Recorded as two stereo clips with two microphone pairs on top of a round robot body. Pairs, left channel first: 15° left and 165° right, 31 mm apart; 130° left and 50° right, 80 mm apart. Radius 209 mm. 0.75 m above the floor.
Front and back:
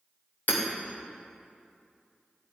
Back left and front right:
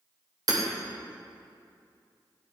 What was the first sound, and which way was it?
Hammering, 10° right.